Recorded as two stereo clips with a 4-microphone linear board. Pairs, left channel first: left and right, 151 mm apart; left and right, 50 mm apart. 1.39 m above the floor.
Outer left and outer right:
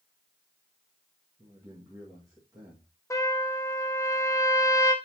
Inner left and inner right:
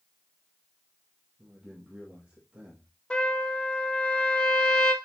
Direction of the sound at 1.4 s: 25° right (ahead or behind).